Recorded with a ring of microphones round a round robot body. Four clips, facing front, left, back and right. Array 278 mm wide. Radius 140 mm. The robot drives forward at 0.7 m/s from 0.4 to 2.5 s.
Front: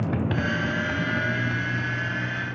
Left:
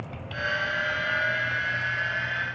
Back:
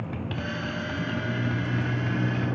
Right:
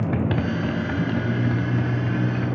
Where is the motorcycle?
65° right; by 2.6 s 115° right.